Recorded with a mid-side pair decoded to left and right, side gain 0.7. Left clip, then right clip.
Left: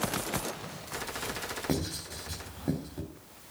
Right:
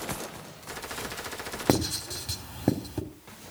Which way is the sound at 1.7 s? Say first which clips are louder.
Right 12 dB; 45° right.